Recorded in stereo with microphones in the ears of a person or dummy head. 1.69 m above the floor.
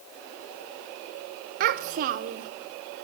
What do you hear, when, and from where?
1.6 s a child speaking: 50° right (ahead or behind), 0.7 m